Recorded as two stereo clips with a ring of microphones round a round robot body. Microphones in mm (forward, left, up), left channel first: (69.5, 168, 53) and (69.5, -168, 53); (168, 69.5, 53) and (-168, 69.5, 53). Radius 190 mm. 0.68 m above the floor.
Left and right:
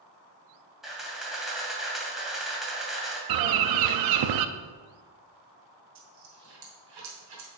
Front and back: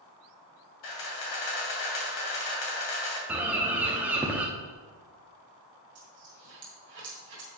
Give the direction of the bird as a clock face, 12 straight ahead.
3 o'clock.